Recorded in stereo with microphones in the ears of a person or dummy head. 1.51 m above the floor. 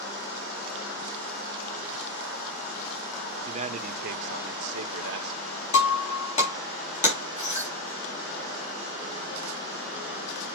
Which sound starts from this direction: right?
A man speaking, at 3.5 s.